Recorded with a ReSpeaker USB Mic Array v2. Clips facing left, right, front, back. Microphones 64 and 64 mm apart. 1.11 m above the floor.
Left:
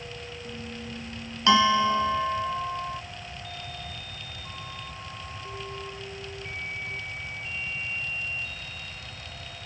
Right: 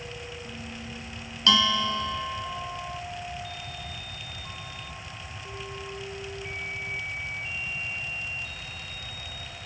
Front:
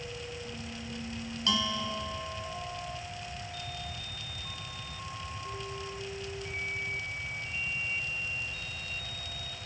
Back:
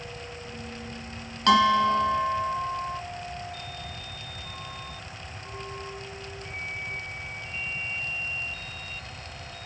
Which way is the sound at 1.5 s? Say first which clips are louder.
Left 4 dB, back 14 dB; 155° left.